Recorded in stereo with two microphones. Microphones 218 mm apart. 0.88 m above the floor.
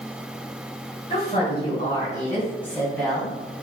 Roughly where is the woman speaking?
Left.